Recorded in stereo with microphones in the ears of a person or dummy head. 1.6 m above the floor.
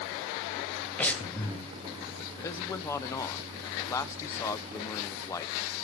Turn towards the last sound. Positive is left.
turn(degrees=15)  # may be behind; listen again after turning